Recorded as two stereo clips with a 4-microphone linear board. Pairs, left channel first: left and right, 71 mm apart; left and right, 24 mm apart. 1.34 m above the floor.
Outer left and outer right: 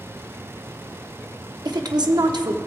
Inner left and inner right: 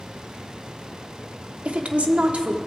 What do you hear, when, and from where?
1.6 s a woman speaking: 70° right (ahead or behind), 0.8 m